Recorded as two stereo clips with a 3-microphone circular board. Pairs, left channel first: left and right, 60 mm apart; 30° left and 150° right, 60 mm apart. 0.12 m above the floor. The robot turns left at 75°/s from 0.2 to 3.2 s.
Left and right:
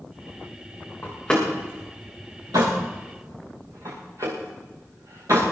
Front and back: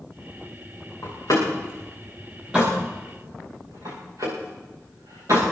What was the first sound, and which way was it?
A door slam, 40° left.